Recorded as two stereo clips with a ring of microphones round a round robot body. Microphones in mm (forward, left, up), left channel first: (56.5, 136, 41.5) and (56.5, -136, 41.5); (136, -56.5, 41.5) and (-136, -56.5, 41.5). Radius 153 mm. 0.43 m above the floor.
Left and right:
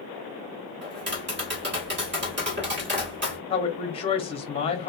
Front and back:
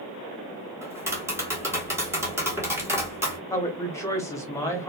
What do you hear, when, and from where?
0.8 s tapping: 105° right, 1.5 m
3.5 s a woman speaking: 60° left, 1.0 m